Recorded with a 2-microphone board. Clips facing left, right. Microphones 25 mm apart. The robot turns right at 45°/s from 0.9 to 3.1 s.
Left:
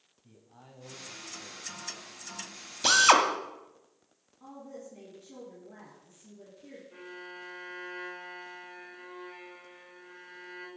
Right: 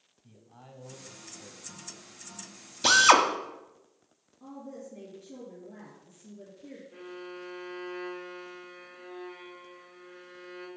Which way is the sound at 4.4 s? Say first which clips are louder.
Right 2 dB; 15° left (ahead or behind).